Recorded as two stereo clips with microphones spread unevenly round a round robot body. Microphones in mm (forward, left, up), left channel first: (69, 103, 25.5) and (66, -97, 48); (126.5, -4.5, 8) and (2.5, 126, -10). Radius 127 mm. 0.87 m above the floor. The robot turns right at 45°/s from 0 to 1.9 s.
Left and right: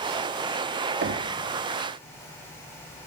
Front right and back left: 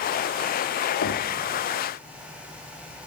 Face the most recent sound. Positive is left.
turn(degrees=-20)